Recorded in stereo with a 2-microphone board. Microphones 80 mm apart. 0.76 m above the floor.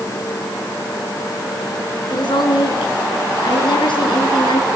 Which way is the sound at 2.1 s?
75° left (ahead or behind).